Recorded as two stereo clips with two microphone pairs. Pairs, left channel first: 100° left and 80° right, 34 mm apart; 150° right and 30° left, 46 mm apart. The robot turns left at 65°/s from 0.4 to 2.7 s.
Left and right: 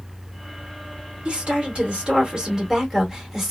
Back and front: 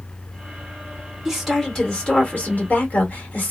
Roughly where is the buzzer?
I don't hear a buzzer.